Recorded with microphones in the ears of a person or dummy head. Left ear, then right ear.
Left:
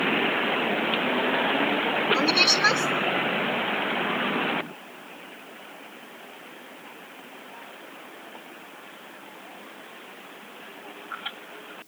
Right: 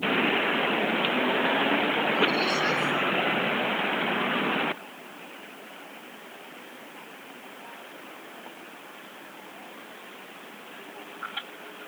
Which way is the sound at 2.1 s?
40° left (ahead or behind).